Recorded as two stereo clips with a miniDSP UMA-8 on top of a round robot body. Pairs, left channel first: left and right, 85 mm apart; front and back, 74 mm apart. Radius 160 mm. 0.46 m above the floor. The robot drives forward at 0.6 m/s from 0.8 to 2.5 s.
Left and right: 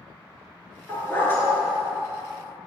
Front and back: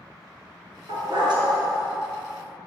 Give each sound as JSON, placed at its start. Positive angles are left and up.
{"t": 0.9, "sound": "a dog barking", "azimuth_deg": 155, "distance_m": 3.0}